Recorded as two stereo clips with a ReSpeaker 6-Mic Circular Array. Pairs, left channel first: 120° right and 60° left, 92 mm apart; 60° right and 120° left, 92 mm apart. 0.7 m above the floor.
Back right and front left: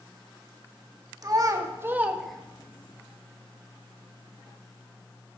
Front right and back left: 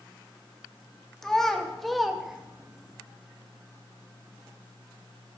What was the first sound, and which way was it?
A child speaking, 25° left.